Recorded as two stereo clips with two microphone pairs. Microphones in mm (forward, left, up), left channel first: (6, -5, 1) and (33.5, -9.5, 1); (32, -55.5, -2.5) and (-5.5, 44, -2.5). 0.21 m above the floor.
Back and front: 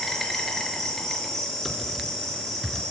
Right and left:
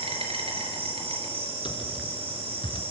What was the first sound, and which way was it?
An insect, 90° left.